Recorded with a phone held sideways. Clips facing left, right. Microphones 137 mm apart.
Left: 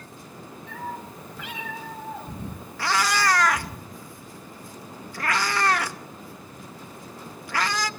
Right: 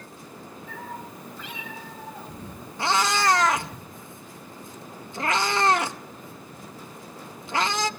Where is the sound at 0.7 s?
70° left (ahead or behind), 7 m; by 3.8 s 45° left (ahead or behind), 5 m.